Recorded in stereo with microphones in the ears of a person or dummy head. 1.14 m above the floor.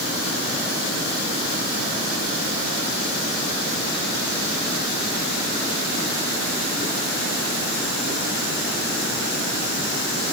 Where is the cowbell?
No cowbell in this recording.